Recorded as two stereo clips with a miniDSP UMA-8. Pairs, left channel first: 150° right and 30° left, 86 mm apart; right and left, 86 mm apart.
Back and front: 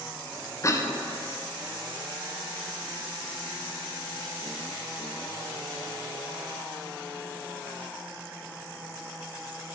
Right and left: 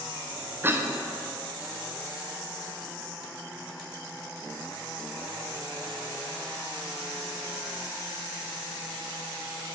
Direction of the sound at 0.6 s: 155° left.